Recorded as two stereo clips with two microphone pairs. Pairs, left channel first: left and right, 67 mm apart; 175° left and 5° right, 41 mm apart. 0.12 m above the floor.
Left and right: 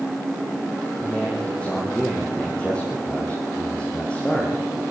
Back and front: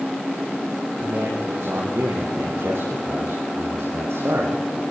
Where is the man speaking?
15° left, 5.5 m.